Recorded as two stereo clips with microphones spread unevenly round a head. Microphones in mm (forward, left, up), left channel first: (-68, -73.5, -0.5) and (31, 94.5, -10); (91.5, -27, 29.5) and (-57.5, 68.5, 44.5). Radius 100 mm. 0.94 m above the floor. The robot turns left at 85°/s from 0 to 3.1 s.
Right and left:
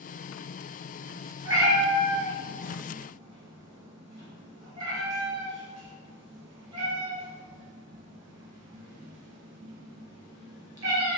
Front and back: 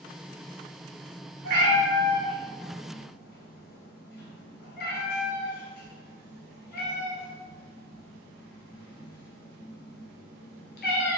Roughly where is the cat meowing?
Behind left.